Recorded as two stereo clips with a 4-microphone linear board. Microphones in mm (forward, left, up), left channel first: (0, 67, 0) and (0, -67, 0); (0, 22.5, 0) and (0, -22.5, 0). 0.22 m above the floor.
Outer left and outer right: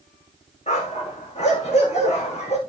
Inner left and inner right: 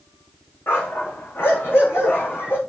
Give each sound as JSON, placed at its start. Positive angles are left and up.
{"t": 0.7, "sound": "a dog barking", "side_deg": 60, "distance_m": 6.5}